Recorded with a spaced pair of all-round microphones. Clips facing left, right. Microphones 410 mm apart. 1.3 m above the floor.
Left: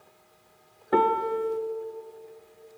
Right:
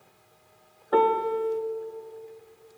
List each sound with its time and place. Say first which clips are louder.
0.9 s a piano: right 2 dB; 40° left (ahead or behind), 0.6 m